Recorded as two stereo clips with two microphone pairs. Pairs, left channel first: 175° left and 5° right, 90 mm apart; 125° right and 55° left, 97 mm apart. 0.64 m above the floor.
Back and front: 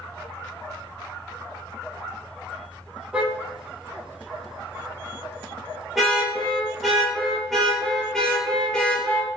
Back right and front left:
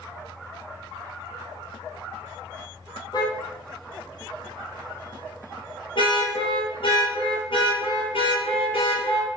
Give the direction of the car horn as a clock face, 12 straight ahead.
3 o'clock.